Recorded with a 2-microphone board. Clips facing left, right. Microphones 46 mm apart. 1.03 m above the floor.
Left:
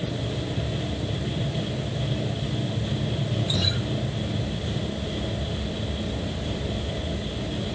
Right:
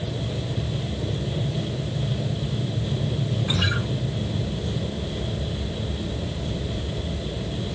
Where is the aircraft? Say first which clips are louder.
Even; 55° right (ahead or behind).